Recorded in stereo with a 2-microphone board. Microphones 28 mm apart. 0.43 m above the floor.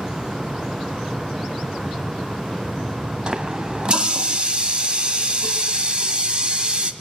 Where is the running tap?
35° right (ahead or behind), 1.7 m.